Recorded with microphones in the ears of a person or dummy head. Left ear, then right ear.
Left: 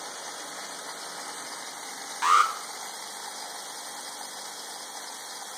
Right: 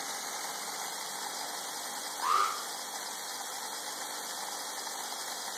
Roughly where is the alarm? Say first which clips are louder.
Left 8 dB; left.